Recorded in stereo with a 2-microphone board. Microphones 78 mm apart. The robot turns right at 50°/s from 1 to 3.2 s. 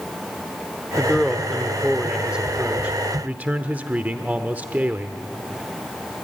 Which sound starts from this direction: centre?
A man speaking, at 1.0 s.